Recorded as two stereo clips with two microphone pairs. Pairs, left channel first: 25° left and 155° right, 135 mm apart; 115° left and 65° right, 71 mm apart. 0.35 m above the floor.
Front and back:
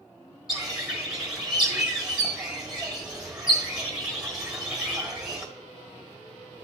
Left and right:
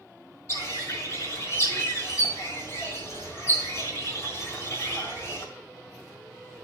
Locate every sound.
0.5 s a bird: 125° left, 1.7 m